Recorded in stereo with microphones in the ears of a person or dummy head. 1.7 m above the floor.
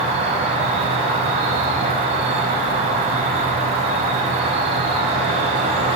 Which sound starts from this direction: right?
An insect, at 0.0 s.